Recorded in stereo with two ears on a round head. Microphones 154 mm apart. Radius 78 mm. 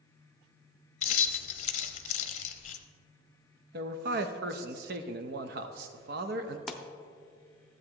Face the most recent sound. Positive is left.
turn(degrees=0)  # may be behind; listen again after turning